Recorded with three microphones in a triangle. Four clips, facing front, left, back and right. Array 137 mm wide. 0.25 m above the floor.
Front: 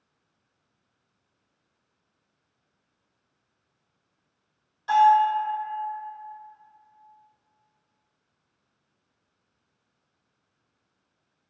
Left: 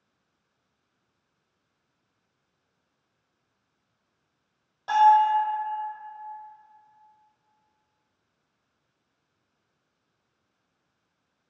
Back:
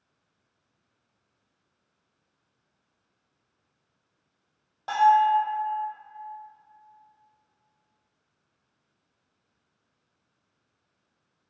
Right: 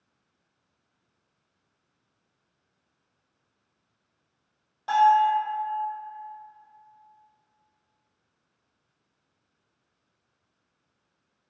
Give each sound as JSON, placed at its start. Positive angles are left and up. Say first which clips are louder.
{"t": 4.9, "sound": "a bell", "louder": "left 1 dB, front 1 dB", "azimuth_deg": 175, "distance_m": 1.6}